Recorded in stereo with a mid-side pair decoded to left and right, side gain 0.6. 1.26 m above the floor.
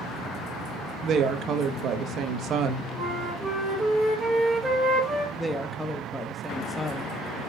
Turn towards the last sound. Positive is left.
turn(degrees=10)